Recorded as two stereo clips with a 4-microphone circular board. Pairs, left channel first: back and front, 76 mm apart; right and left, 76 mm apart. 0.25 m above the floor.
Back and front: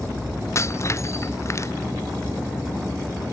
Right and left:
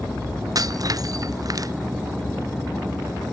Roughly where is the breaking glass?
Behind left.